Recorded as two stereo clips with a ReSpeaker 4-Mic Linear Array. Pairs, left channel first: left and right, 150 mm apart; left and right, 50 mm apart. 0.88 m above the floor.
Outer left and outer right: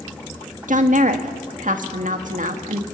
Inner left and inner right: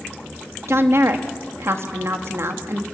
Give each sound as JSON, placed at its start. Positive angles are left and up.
{"t": 0.7, "sound": "a woman speaking", "side_deg": -60, "distance_m": 1.8}